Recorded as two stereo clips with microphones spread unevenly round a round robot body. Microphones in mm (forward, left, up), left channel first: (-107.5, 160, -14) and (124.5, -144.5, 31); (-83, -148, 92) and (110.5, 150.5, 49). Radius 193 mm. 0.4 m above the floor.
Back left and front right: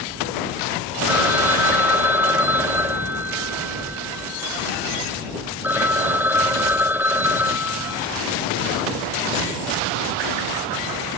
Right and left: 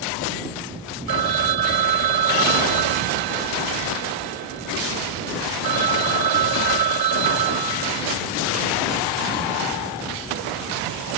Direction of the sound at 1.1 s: 30° left.